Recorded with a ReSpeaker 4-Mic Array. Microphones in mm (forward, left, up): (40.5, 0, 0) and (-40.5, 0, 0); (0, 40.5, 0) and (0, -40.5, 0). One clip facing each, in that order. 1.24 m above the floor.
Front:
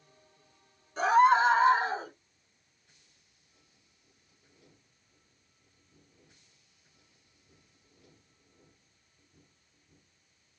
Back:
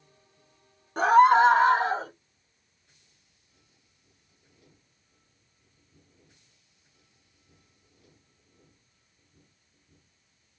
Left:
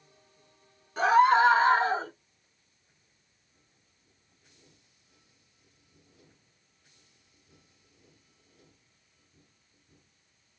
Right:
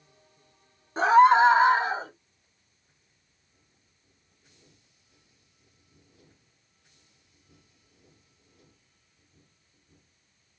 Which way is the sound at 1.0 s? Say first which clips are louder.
Back 5 dB, right 3 dB; 150° right.